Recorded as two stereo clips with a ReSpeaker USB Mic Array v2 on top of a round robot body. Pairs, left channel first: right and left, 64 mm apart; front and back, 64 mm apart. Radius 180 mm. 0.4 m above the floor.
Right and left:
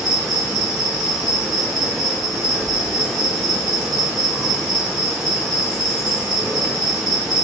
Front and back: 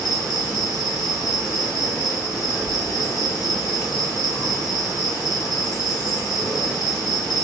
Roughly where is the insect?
Ahead.